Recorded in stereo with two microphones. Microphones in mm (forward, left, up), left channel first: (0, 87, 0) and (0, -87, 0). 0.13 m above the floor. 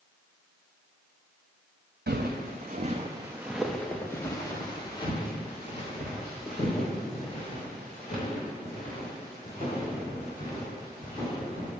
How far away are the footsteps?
About 0.9 m.